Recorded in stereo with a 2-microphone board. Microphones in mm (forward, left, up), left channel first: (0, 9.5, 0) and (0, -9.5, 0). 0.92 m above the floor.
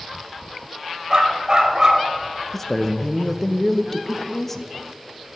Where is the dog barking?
35° right (ahead or behind), 1.5 m.